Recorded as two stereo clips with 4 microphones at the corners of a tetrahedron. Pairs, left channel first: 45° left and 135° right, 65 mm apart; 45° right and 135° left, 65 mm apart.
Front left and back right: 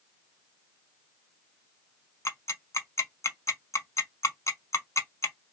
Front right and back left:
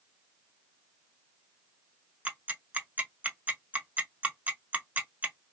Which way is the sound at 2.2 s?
75° left.